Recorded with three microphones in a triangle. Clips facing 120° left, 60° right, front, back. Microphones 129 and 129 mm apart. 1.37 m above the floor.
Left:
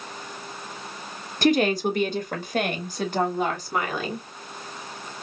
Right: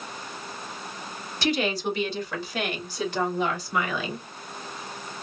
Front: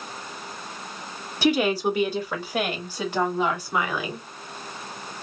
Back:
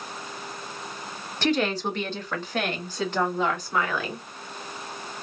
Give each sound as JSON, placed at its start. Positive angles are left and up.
{"t": 1.4, "sound": "a woman speaking", "azimuth_deg": 80, "distance_m": 1.1}